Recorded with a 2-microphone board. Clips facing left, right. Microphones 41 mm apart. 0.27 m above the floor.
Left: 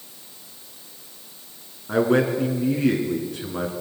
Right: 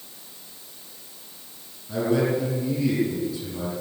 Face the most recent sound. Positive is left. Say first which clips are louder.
# left 3 dB
turn(degrees=55)  # may be behind; listen again after turning